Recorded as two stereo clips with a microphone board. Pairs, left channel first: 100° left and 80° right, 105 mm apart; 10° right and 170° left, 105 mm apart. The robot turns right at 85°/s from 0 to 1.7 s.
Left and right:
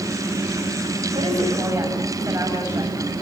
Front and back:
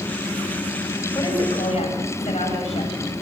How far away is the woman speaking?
About 7.5 m.